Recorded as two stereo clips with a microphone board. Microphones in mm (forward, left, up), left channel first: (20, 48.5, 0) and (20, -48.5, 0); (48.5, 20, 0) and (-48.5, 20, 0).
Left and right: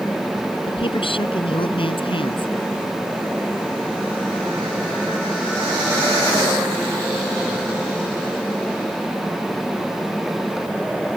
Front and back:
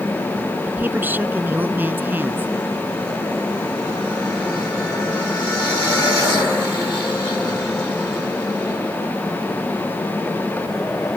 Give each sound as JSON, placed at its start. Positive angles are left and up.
{"t": 0.7, "sound": "a woman speaking", "azimuth_deg": 110}